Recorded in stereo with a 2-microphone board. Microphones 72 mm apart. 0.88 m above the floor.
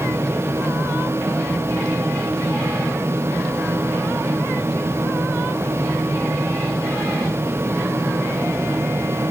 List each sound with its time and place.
Only background noise.